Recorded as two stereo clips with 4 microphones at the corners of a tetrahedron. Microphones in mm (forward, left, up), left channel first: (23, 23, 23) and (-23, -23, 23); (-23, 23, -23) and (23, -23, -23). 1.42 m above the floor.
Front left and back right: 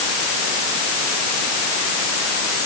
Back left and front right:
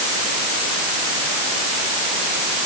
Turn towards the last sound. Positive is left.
No sound to turn to.